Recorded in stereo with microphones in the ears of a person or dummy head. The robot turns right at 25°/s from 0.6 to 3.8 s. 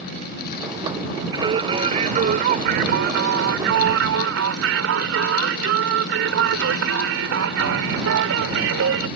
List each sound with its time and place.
1.3 s singing: 155° right; by 9.1 s 95° right